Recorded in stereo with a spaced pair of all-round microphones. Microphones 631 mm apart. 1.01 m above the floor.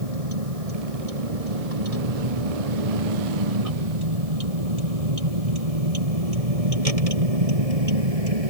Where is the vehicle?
65° right (ahead or behind).